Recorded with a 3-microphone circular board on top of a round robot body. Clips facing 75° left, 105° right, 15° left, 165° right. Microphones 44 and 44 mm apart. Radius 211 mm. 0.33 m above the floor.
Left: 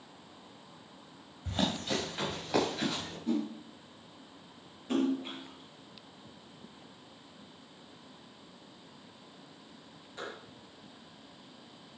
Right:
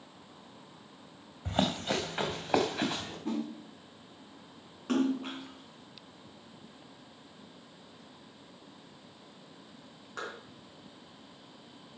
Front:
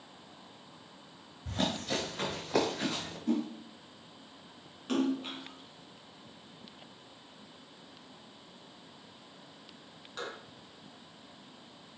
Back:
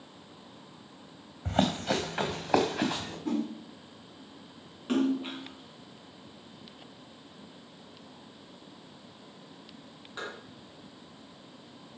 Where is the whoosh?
125° right, 5 m.